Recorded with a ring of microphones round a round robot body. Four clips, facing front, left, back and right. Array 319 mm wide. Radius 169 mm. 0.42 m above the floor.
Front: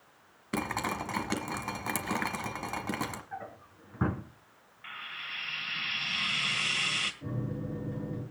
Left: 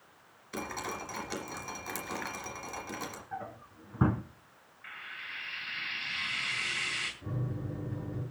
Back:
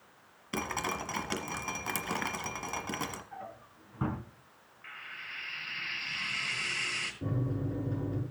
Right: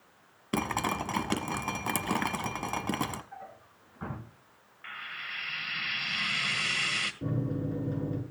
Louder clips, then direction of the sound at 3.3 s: Left 5 dB, front 2 dB; 80° left.